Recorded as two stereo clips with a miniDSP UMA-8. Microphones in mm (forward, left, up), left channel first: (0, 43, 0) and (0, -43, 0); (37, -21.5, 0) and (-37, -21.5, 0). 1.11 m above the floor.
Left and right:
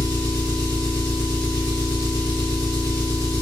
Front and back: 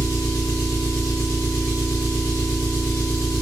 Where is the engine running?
45° right, 1.8 m.